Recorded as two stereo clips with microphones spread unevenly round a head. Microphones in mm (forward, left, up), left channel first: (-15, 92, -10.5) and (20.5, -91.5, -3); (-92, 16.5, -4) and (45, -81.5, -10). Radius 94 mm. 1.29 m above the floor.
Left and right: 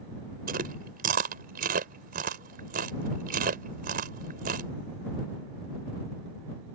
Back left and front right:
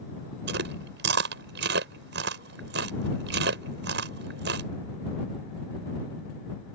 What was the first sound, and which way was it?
Chewing, 40° right.